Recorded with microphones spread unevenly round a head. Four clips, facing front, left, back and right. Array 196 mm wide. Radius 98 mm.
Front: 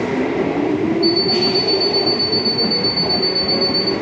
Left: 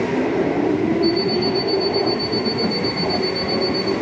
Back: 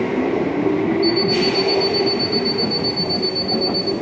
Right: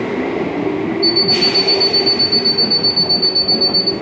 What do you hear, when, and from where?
1.0 s an alarm clock: 55° right, 1.6 m